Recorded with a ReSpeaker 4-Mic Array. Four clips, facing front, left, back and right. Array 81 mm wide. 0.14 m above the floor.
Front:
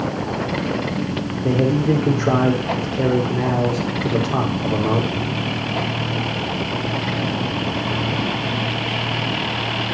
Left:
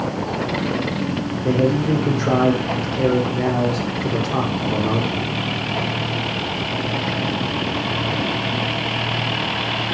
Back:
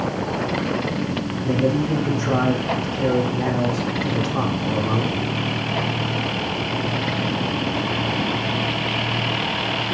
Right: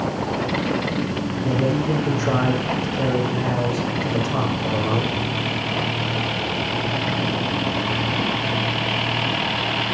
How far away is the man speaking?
About 6.5 m.